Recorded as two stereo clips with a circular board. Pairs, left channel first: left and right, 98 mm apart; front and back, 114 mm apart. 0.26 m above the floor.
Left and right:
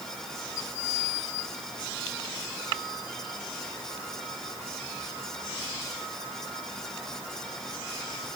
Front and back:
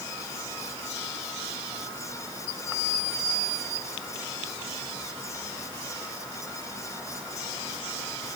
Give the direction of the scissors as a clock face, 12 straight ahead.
No scissors in this recording.